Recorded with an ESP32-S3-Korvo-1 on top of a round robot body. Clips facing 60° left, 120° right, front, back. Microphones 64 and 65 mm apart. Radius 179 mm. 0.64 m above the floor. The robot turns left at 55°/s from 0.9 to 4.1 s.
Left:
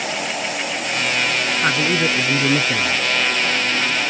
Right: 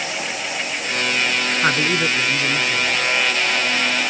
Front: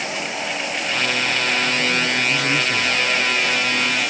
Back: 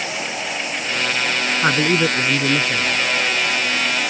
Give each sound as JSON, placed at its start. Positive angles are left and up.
{"t": 1.6, "sound": "a man speaking", "azimuth_deg": 160}